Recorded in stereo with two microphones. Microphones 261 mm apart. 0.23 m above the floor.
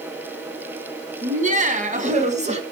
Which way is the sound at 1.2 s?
30° right (ahead or behind).